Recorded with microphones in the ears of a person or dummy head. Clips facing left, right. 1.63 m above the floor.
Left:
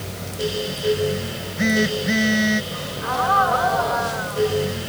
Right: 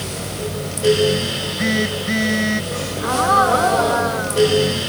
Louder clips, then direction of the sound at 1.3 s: Even; 10° left (ahead or behind).